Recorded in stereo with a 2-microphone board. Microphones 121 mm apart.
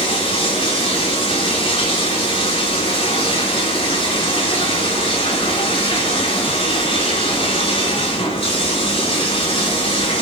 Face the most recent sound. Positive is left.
turn(degrees=50)  # may be behind; listen again after turning